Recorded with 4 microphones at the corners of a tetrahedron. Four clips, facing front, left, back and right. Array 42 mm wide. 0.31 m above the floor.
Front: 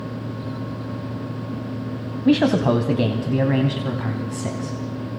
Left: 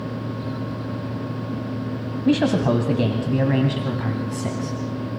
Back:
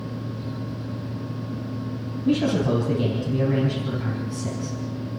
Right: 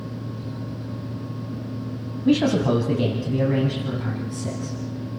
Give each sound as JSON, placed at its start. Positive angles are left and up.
{"t": 2.2, "sound": "a man speaking", "azimuth_deg": 10, "distance_m": 2.5}